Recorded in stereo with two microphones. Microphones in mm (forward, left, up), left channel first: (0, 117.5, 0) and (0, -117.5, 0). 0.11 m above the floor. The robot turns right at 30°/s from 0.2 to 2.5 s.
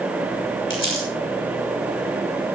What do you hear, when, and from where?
0.7 s crumpling: 55° left (ahead or behind), 6.5 m; by 1.1 s 65° left (ahead or behind), 6.5 m